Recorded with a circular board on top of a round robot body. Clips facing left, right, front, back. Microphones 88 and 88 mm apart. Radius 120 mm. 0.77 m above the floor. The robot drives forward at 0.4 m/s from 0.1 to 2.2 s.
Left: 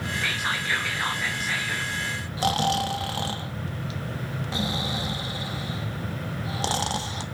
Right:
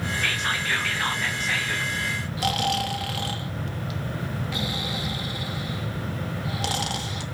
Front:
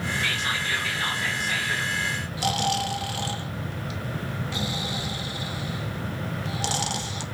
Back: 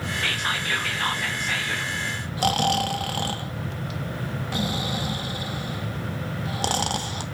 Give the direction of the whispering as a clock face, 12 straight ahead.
6 o'clock.